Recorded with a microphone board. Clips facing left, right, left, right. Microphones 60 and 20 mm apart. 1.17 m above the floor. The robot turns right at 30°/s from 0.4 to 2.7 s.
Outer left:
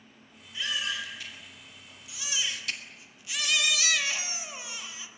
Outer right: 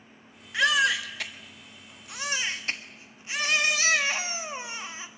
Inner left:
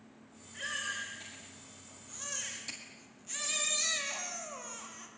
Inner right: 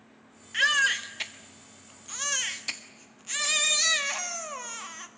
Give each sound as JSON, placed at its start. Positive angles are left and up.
{"t": 0.5, "sound": "a baby crying", "azimuth_deg": -100, "distance_m": 1.5}